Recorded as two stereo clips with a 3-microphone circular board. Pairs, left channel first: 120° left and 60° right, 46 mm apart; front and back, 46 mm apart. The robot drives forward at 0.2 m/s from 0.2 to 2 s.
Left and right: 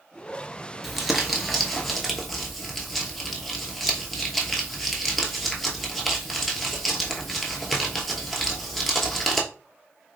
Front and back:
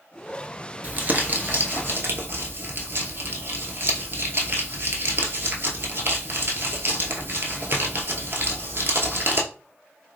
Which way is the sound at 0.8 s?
145° right.